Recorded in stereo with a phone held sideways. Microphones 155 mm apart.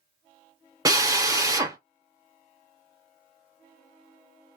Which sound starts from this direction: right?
A drill, at 0.8 s.